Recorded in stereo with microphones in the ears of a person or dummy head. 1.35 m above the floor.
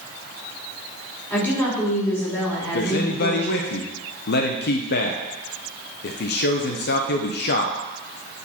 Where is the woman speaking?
10° left (ahead or behind), 3 m.